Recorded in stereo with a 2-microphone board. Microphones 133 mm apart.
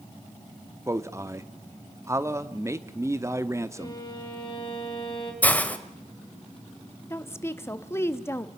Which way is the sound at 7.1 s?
20° left (ahead or behind).